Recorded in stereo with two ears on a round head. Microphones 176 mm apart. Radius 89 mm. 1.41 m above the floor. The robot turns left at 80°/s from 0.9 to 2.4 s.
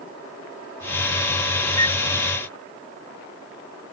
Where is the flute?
15° left (ahead or behind); by 2.0 s 30° left (ahead or behind).